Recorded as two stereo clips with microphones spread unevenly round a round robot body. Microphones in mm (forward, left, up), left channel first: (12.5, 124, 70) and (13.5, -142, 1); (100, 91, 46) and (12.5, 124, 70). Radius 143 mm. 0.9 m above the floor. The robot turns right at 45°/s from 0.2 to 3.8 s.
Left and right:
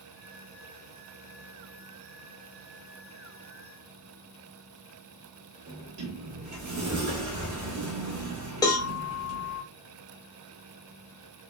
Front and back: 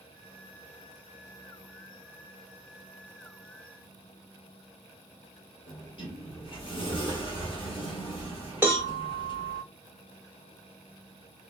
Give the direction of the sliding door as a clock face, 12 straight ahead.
2 o'clock.